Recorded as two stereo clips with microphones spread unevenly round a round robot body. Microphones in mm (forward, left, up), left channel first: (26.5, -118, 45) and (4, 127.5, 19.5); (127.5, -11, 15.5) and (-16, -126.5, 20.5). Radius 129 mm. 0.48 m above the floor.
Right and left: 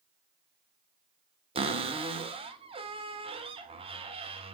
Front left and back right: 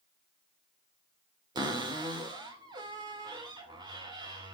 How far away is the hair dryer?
I don't hear a hair dryer.